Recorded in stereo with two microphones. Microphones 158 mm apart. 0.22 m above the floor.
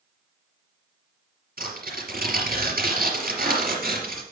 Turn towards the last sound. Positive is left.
turn(degrees=-65)  # may be behind; listen again after turning